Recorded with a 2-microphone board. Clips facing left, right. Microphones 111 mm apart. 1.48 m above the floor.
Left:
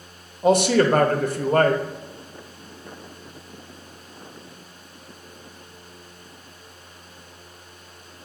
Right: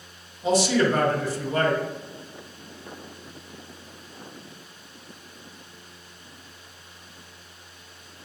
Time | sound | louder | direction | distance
0.4 | a man speaking | left 4 dB | 55° left (ahead or behind) | 0.5 m